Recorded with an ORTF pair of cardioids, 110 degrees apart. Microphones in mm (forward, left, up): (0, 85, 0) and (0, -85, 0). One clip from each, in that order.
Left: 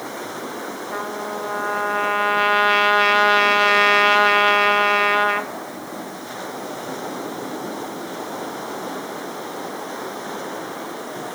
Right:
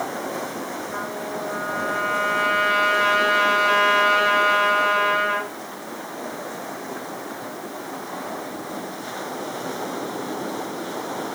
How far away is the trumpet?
About 0.9 m.